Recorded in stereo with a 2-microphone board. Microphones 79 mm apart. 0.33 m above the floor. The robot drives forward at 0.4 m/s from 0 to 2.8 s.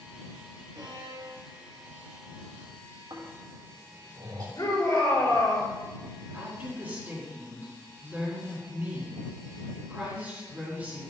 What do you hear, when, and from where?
0.8 s a violin: 50° right (ahead or behind), 2.5 m; by 2.4 s 40° right (ahead or behind), 3 m
3.1 s snoring: 55° right (ahead or behind), 3 m
4.6 s a shout: 45° left (ahead or behind), 5 m
6.3 s a woman speaking: 25° right (ahead or behind), 4.5 m